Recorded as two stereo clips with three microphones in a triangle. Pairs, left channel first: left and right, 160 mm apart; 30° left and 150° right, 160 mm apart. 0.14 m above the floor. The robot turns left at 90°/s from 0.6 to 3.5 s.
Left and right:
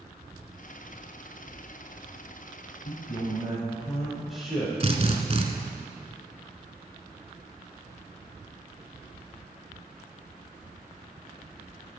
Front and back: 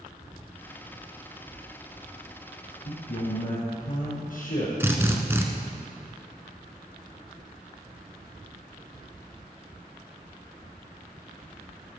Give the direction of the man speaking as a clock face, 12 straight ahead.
10 o'clock.